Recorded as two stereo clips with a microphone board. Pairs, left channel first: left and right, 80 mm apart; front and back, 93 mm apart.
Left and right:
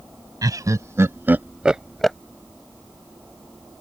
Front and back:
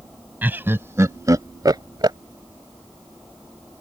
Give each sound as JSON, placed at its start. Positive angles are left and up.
{"t": 0.4, "sound": "laughter", "azimuth_deg": -110}